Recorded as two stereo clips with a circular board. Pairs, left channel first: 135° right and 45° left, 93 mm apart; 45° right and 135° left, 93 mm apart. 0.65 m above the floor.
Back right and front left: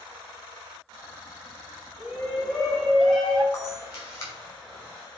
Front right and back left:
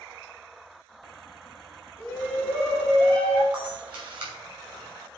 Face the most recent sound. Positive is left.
turn(degrees=170)